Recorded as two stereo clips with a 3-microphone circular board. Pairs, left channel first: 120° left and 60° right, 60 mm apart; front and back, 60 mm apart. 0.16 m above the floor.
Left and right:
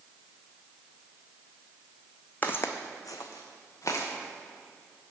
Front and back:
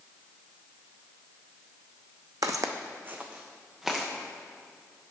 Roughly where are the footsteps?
Behind.